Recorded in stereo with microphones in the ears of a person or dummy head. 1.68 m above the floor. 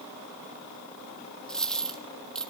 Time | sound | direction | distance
1.5 | a dropped coin | 5° left (ahead or behind) | 1.7 m